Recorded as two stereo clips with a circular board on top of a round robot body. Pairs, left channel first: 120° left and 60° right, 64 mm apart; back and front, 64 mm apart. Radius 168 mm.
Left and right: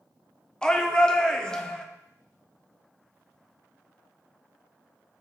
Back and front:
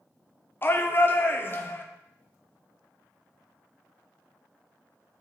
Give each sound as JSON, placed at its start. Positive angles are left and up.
{"t": 0.6, "sound": "a shout", "azimuth_deg": -170, "distance_m": 1.2}